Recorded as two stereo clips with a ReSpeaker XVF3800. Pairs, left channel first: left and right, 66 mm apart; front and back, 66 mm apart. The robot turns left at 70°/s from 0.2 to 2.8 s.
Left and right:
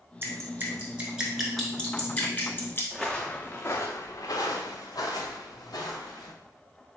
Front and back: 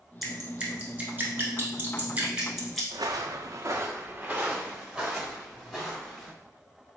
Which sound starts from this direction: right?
Dripping, at 0.2 s.